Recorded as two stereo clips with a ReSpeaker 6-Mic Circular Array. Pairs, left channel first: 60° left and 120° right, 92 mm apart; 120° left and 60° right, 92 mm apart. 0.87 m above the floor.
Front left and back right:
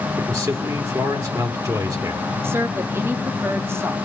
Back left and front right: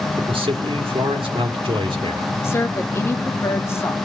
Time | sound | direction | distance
0.2 | a man speaking | 70° right | 2.5 m
2.4 | a woman speaking | straight behind | 1.8 m